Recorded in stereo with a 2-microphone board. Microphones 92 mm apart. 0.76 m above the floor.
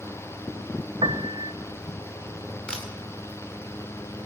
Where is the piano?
75° right (ahead or behind), 0.7 m.